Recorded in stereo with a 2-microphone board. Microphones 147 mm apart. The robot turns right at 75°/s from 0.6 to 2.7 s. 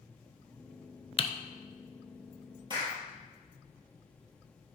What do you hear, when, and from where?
1.2 s typing on a keyboard: 40° left (ahead or behind), 0.5 m; by 1.3 s 45° left (ahead or behind), 0.5 m
2.7 s a clap: 30° right (ahead or behind), 2 m